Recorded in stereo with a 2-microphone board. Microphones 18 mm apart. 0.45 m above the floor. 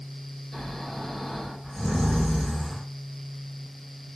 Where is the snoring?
25° left (ahead or behind), 1.4 m.